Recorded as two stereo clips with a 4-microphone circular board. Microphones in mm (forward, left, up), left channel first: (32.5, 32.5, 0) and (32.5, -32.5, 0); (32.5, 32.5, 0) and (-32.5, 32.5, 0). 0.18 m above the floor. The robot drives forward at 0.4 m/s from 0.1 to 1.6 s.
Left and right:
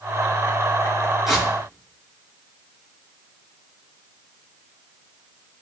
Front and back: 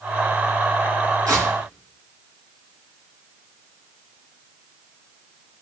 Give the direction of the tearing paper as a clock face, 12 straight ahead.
6 o'clock.